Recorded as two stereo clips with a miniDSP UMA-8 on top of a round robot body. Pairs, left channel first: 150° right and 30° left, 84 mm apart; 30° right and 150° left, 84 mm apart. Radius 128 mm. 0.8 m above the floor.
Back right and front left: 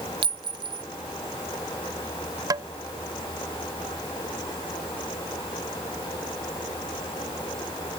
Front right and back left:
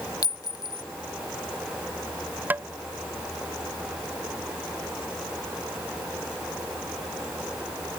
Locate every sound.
0.2 s a clink: 15° left
2.5 s tapping: 80° left